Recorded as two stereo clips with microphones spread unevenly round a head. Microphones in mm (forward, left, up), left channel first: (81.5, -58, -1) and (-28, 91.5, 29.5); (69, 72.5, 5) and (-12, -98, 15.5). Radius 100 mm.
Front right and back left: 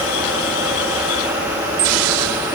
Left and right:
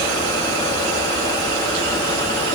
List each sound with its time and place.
Only background noise.